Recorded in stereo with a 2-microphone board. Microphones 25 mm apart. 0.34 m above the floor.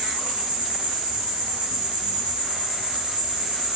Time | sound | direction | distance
0.0 | an insect | 60° right (ahead or behind) | 0.9 m